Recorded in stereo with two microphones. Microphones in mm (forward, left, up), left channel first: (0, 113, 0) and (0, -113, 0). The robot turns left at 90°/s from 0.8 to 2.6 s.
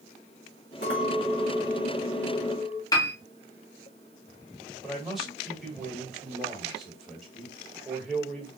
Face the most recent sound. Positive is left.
turn(degrees=0)  # may be behind; listen again after turning